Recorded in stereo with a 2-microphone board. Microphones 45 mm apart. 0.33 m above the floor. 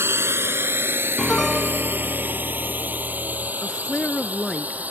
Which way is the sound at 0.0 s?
65° right (ahead or behind).